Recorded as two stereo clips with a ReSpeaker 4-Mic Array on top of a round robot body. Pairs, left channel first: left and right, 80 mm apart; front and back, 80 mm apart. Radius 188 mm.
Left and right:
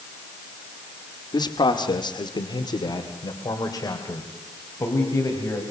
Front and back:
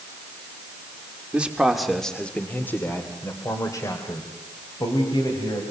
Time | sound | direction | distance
1.3 | a man speaking | 110° left | 1.9 m